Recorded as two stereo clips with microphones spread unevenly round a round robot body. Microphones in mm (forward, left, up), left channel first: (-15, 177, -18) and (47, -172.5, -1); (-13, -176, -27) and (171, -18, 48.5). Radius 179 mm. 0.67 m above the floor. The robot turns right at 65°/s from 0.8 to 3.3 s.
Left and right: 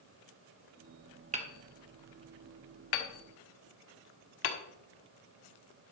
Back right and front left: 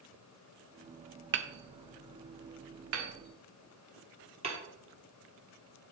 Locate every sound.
1.3 s hammering: 10° right, 1.2 m; by 4.6 s 120° left, 1.2 m